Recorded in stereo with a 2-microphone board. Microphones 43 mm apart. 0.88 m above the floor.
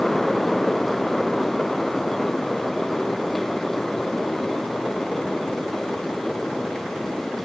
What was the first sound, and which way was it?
Only background noise.